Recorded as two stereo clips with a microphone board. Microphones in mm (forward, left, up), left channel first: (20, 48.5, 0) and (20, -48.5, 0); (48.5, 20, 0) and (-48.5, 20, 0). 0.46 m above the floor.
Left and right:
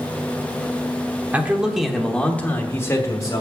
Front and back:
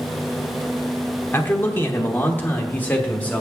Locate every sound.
1.3 s a man speaking: 35° right, 1.2 m; by 3.4 s 65° left, 1.4 m